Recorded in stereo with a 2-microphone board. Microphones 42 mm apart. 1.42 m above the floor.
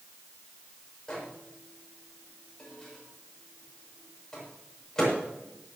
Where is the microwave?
15° left (ahead or behind), 7 m.